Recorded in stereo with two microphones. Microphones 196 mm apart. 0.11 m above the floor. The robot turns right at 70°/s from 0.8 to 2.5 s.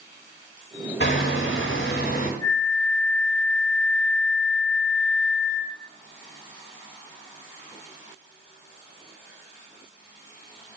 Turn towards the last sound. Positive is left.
turn(degrees=20)  # may be behind; listen again after turning